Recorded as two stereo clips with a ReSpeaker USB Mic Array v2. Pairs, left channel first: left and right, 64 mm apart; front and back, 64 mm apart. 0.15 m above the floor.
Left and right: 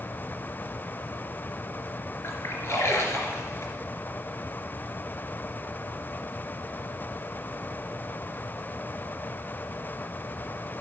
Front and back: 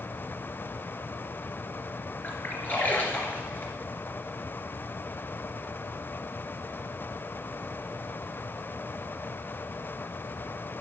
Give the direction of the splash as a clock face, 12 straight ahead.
10 o'clock.